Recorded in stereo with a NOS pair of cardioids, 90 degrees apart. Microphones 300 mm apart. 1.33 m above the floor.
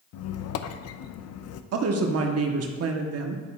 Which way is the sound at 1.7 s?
60° right.